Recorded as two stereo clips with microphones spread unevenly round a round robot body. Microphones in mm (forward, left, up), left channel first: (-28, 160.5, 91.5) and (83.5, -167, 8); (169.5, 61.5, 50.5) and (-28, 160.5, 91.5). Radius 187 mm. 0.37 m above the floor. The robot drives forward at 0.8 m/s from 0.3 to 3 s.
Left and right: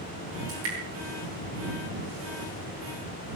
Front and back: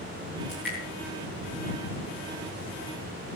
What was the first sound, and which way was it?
Dripping, 120° right.